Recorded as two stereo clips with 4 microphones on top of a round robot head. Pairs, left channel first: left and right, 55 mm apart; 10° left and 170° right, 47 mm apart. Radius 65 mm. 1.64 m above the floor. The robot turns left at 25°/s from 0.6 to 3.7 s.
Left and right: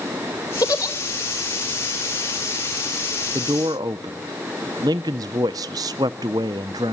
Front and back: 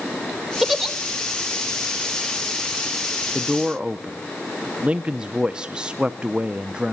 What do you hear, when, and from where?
0.6 s a giggle: 110° left, 1.5 m; by 0.9 s 100° left, 1.5 m
3.3 s a man speaking: 85° right, 0.7 m; by 6.9 s 90° right, 0.7 m